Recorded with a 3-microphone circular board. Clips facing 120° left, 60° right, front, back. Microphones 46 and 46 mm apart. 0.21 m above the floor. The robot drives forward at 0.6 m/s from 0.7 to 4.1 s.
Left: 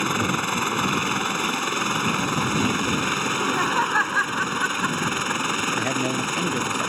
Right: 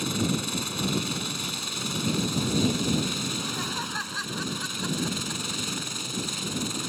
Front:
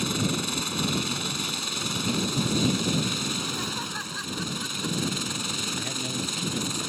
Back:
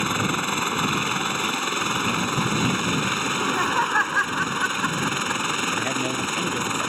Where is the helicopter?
145° left.